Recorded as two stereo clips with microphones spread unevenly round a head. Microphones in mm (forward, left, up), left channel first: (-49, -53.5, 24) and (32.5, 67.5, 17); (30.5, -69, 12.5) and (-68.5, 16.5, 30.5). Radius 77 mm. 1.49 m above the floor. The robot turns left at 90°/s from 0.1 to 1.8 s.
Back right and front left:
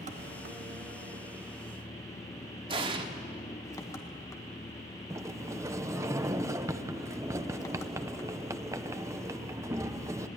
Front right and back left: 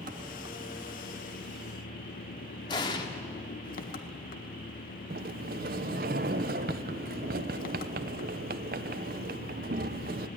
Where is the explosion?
15° left, 1.2 m.